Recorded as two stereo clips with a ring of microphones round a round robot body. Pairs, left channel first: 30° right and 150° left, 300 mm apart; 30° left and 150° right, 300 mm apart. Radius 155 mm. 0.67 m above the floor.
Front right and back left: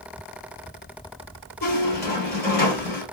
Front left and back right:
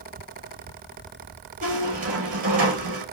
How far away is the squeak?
About 2 m.